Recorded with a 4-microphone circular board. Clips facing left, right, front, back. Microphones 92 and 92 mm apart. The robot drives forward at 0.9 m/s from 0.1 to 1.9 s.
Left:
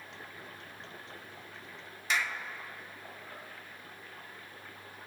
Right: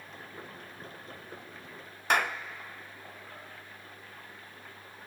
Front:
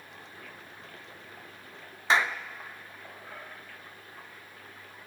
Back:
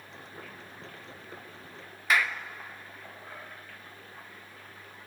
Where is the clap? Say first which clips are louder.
Right 5 dB, front 2 dB; 60° right, 0.5 m.